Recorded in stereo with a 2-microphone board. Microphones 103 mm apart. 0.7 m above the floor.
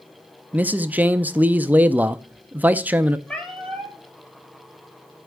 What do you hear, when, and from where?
0.5 s a man speaking: 15° right (ahead or behind), 0.5 m
3.3 s a cat meowing: 5° left (ahead or behind), 6.5 m